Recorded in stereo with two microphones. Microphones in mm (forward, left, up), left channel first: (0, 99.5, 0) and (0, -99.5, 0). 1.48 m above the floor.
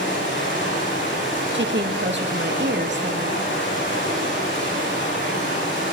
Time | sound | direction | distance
0.0 | running water | 80° left | 9.5 m
1.5 | a woman speaking | 70° right (ahead or behind) | 2.5 m